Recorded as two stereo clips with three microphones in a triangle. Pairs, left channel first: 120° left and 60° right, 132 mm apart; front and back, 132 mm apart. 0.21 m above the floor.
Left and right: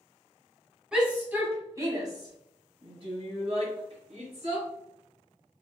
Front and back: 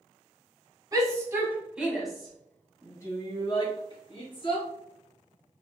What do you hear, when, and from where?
0.9 s a shout: 140° right, 1.4 m; by 4.7 s 35° right, 2 m